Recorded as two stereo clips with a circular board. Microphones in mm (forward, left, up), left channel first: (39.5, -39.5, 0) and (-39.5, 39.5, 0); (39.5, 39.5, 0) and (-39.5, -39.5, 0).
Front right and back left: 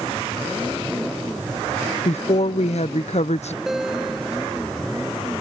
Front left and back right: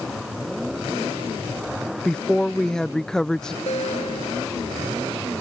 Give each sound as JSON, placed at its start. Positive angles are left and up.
{"t": 2.0, "sound": "a woman speaking", "azimuth_deg": -40}
{"t": 3.7, "sound": "a guitar", "azimuth_deg": 50}